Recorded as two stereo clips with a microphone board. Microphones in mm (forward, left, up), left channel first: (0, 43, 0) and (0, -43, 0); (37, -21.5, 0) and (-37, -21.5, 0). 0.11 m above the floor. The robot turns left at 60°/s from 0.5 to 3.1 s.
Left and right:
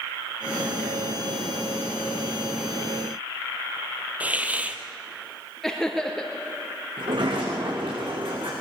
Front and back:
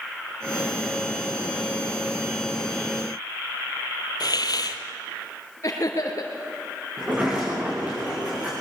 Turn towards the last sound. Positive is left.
turn(degrees=-105)